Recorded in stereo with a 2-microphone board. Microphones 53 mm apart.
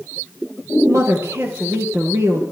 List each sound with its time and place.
0.9 s a woman speaking: 60° right (ahead or behind), 3.5 m